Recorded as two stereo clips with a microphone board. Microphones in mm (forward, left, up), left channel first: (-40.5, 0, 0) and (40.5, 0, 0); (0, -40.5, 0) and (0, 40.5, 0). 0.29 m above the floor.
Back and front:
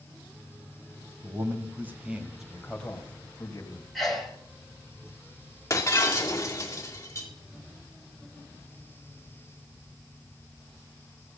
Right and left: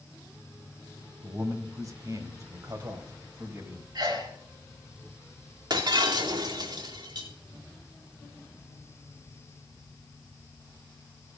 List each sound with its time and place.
1.2 s a man speaking: 45° left, 2.5 m; by 3.9 s 145° left, 2.5 m
4.0 s a sneeze: 90° left, 2.5 m
5.7 s breaking glass: 125° left, 2.5 m